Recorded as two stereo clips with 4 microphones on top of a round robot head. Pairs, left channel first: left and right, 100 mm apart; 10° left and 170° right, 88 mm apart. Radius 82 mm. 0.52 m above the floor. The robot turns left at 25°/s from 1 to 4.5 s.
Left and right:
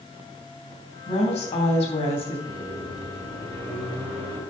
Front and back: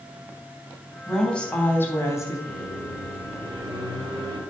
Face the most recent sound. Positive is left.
turn(degrees=-130)